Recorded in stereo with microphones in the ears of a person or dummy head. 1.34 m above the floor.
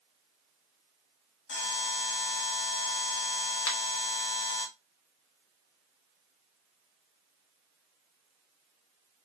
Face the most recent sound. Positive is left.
turn(degrees=70)  # may be behind; listen again after turning